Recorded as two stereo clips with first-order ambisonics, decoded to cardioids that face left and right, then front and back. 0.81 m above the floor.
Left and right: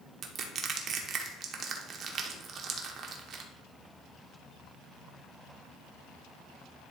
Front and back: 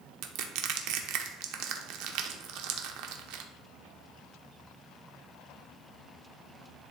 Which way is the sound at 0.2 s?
150° right.